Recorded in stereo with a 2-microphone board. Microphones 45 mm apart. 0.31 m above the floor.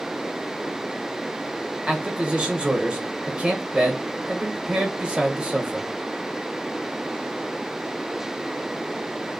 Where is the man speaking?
25° right (ahead or behind), 1.4 m.